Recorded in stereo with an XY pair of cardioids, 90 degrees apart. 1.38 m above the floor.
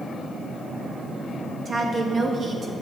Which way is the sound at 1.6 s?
40° right.